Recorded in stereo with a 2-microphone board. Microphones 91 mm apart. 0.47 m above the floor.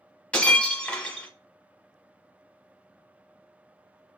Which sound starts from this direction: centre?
Breaking glass, at 0.3 s.